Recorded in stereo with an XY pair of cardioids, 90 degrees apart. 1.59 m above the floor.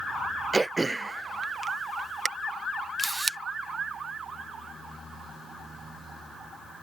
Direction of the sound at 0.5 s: 20° right.